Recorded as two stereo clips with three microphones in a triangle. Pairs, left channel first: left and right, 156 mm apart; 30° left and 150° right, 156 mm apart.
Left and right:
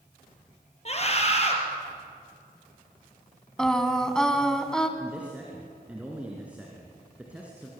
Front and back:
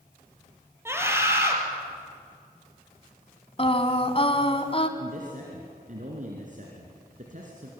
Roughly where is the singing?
Ahead.